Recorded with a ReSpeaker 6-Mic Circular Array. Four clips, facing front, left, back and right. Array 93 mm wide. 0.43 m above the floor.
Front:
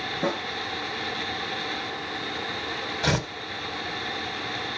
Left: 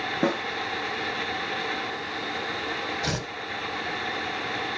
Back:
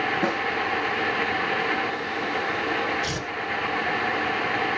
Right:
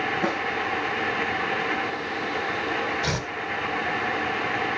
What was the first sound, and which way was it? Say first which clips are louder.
A snare drum: left 4 dB, front 2 dB; 105° left.